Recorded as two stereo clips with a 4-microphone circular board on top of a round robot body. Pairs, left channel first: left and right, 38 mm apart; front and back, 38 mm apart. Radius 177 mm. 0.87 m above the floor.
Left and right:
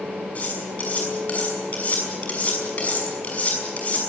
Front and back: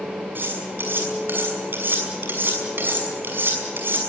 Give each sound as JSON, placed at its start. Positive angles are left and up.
{"t": 0.3, "sound": "cutlery clinking", "azimuth_deg": 145, "distance_m": 6.0}